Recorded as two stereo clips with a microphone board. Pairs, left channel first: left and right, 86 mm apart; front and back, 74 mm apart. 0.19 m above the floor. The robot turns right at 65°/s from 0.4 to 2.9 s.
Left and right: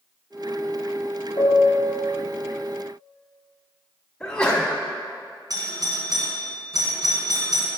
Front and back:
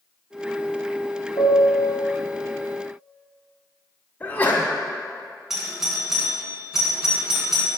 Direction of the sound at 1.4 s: 35° left.